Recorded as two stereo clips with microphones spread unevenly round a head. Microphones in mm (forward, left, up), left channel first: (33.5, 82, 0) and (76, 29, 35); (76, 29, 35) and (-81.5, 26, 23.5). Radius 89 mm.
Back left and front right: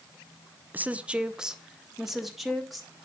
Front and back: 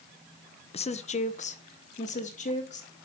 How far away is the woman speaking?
About 0.7 m.